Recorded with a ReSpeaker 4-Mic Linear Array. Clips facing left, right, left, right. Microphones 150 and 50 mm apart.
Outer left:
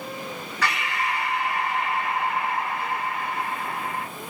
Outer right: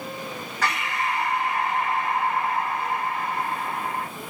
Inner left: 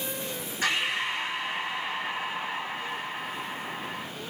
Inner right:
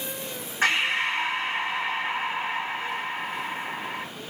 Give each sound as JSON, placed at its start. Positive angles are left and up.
{"t": 0.6, "sound": "breathing", "side_deg": -45, "distance_m": 2.5}